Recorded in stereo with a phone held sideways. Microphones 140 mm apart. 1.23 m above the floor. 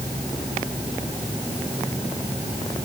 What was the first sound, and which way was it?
Only background noise.